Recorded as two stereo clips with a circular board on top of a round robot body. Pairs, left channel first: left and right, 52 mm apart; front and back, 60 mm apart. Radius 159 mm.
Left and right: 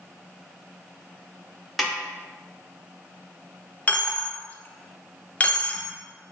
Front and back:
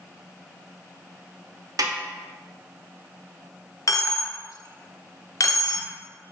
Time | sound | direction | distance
1.8 | a snare drum | straight behind | 0.8 m
3.9 | a dropped coin | 25° left | 0.6 m